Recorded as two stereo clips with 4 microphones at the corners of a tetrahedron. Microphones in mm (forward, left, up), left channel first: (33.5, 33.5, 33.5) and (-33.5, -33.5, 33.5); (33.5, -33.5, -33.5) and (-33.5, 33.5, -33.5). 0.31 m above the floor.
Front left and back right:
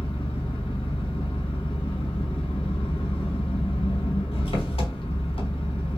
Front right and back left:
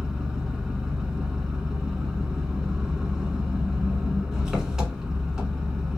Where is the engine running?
50° left, 0.8 m.